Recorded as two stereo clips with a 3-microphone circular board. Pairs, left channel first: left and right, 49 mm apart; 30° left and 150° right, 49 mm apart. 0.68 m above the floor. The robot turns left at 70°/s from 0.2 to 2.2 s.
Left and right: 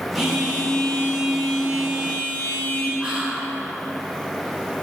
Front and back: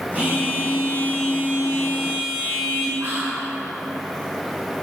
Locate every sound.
0.1 s a phone buzzing: 175° right, 1.2 m; by 2.9 s 45° left, 1.2 m
3.0 s whispering: 145° right, 1.0 m